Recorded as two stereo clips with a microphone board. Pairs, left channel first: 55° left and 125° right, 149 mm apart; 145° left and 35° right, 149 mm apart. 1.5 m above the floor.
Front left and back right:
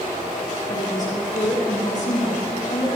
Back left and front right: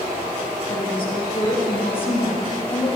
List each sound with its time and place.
0.7 s a woman speaking: 90° left, 3.5 m